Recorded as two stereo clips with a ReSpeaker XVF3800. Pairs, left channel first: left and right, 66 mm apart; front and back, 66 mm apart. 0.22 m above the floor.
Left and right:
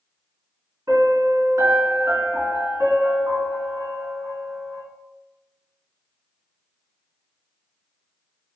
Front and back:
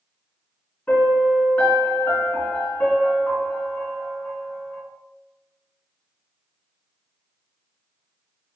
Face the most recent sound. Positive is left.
turn(degrees=-60)